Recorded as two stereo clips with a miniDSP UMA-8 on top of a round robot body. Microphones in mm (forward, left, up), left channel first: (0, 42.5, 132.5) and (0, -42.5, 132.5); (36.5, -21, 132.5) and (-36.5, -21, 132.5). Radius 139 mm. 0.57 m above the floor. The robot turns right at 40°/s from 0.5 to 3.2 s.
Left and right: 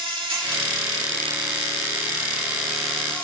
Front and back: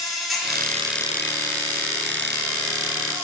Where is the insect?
90° right, 5 m; by 3.2 s 15° left, 5 m.